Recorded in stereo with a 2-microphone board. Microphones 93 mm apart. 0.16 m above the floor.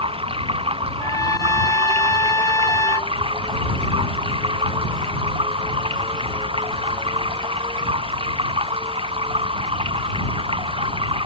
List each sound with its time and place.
0.0 s running water: 75° right (ahead or behind)
1.0 s a trumpet: 35° left (ahead or behind)